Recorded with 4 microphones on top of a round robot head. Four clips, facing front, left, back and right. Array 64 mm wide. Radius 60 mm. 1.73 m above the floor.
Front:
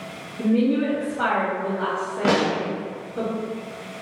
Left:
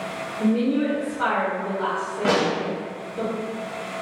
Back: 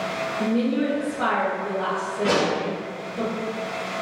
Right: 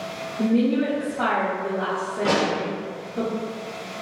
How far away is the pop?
About 0.8 m.